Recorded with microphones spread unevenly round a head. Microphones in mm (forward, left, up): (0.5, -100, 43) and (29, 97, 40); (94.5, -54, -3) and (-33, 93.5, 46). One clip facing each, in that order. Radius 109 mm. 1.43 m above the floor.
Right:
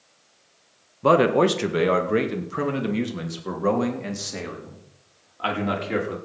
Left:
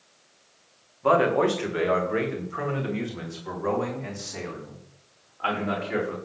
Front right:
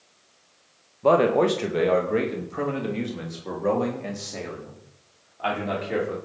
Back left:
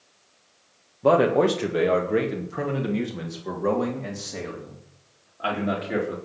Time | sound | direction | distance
1.0 | a man speaking | 140° right | 1.8 m